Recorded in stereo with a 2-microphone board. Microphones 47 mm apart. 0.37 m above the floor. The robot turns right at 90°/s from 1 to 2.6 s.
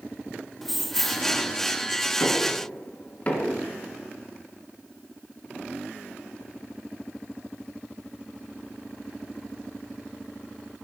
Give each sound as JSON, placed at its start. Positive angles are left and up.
{"t": 0.6, "sound": "keys jangling", "side_deg": 0, "distance_m": 0.7}
{"t": 2.2, "sound": "knocking", "side_deg": 60, "distance_m": 4.5}